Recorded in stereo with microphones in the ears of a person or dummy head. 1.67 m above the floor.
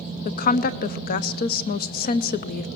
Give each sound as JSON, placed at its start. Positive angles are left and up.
{"t": 0.2, "sound": "a woman speaking", "side_deg": 40, "distance_m": 0.8}